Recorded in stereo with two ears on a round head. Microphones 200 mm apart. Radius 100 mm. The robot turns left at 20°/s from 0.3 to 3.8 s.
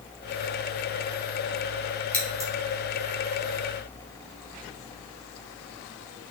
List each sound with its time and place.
2.1 s scissors: 5° left (ahead or behind), 2.5 m; by 2.5 s centre (ahead or behind), 2.5 m